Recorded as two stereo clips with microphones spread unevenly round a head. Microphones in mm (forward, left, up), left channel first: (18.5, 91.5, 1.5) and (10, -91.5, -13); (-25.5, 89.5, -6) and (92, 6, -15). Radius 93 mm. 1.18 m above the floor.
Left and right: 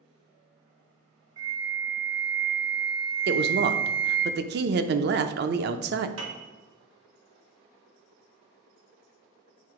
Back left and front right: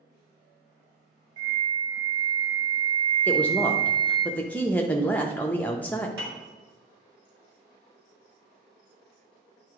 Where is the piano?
75° right, 2 m.